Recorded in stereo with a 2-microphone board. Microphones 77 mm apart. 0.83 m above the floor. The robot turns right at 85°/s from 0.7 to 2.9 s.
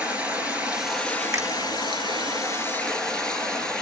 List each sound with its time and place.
0.0 s running water: 20° right, 2.5 m; by 3.8 s 170° left, 2.5 m
1.3 s a finger snap: 45° right (ahead or behind), 1.1 m; by 1.5 s 40° right (ahead or behind), 1.1 m